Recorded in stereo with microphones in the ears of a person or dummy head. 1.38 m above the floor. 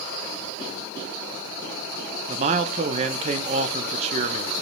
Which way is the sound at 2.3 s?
35° right (ahead or behind).